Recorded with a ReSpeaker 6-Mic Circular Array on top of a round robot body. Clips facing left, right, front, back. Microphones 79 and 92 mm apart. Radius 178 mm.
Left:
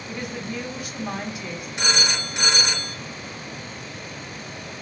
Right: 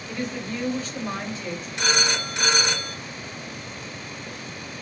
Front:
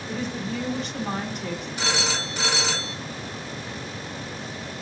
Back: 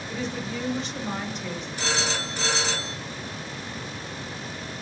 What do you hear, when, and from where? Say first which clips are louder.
0.1 s a woman speaking: right 2 dB, front 2 dB; 15° left, 1.7 m
1.8 s a phone ringing: right 1 dB, even; 20° left, 2.5 m